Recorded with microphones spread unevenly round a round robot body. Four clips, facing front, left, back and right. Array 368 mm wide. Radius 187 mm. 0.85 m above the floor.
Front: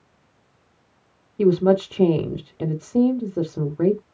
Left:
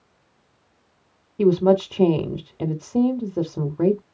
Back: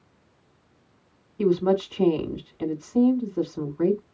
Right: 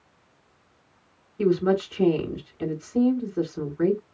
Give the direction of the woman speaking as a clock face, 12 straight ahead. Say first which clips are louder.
Left 5 dB, front 4 dB; 11 o'clock.